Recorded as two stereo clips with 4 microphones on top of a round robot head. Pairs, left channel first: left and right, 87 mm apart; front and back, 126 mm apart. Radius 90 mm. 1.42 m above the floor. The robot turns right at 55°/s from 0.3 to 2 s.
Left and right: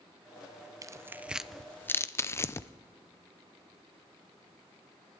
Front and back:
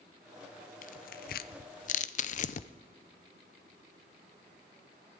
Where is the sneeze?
I don't hear a sneeze.